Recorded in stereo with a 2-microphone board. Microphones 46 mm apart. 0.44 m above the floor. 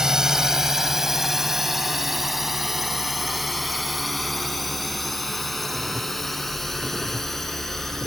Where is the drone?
10° right (ahead or behind); by 8.1 s 5° left (ahead or behind).